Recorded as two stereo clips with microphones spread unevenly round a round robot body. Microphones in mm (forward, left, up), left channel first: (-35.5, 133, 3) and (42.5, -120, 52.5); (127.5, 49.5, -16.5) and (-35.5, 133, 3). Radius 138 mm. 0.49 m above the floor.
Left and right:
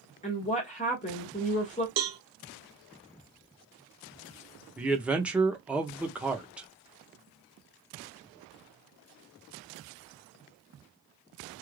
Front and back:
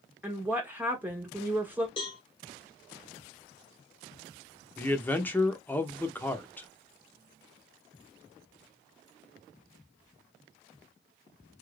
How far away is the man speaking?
About 0.7 m.